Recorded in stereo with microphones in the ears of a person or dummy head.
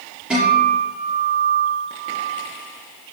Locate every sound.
0.3 s a guitar: centre (ahead or behind), 7 m